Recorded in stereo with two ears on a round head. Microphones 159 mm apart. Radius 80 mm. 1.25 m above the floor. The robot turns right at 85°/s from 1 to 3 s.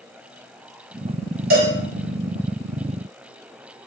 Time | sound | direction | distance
1.5 | a cowbell | 55° right (ahead or behind) | 0.8 m